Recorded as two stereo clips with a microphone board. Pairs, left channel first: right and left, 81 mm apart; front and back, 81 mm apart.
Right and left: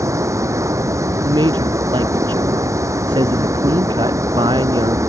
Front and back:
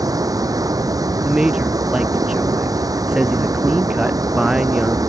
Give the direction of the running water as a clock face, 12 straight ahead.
7 o'clock.